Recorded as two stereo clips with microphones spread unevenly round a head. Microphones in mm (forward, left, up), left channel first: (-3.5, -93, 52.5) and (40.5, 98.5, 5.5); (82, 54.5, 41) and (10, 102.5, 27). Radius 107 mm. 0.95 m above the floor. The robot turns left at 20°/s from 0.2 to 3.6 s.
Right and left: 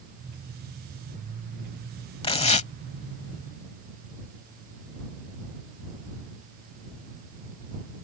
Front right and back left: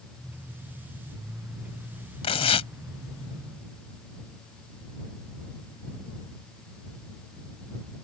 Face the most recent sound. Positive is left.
turn(degrees=-70)